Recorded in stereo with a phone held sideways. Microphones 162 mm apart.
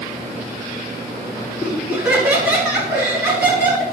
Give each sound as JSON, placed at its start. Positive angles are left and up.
{"t": 1.6, "sound": "laughter", "side_deg": -10, "distance_m": 3.0}